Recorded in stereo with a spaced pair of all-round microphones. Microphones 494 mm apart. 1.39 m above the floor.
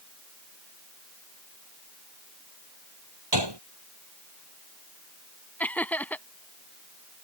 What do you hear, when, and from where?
3.3 s a gunshot: 55° right (ahead or behind)
5.6 s laughter: 5° left (ahead or behind)